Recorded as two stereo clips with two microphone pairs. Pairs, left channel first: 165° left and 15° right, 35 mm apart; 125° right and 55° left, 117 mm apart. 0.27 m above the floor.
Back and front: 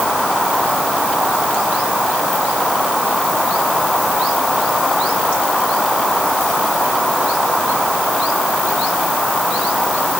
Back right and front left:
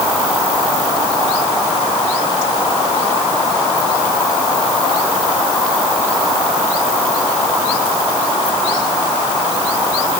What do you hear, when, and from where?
Only background noise.